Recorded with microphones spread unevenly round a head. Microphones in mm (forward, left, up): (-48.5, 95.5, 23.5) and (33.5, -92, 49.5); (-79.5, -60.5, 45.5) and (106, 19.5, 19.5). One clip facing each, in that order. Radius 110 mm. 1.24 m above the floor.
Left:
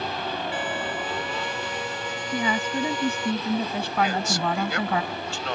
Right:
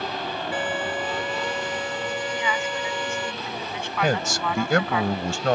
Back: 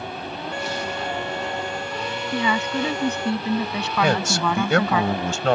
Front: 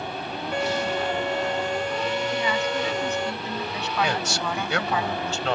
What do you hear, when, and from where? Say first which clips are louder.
0.5 s a violin: right 2 dB, front 5 dB; 50° right
2.3 s a woman speaking: left 2 dB, back 2 dB; 170° left
4.0 s a man speaking: right 4 dB, back 7 dB; 115° right